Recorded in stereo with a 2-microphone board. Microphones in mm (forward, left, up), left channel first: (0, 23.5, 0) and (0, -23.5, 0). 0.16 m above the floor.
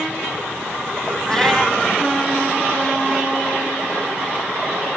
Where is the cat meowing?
15° left (ahead or behind), 0.9 m.